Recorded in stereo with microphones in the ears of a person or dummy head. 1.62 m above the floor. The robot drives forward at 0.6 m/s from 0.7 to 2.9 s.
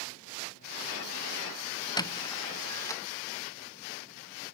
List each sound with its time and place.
2.0 s a squeak: 25° left (ahead or behind); by 3.0 s 15° left (ahead or behind)